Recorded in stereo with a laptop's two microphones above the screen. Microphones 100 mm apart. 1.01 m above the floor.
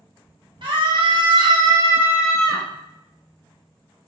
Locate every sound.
0.6 s a scream: 60° right (ahead or behind), 1.2 m; by 2.7 s 10° left (ahead or behind), 0.9 m